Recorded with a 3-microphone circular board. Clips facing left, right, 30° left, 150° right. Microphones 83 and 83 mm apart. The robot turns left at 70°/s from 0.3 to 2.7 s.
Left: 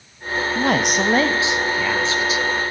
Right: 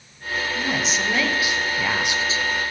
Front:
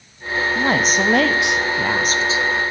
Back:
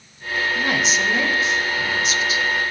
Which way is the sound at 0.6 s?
90° left.